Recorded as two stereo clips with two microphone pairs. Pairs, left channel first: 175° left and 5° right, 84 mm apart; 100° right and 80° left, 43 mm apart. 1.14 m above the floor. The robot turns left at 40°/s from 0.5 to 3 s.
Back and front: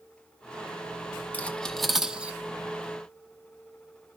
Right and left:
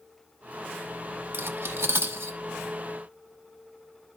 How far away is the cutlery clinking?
About 0.9 m.